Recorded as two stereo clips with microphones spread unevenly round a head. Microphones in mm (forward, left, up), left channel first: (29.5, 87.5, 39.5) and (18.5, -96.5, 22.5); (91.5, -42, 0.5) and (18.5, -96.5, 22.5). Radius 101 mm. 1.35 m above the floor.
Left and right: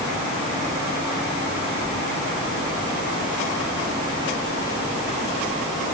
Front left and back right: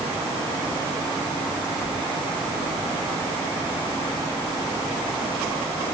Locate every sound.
Only background noise.